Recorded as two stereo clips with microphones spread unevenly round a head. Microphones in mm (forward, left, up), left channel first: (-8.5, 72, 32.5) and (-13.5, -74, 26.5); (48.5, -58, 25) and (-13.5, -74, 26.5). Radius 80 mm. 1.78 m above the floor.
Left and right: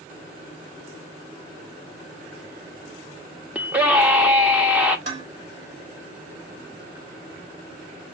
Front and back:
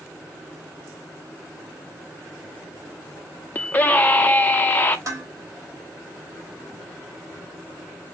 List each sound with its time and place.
3.5 s a scream: 15° right, 0.6 m
5.1 s dishes clattering: 135° right, 2.5 m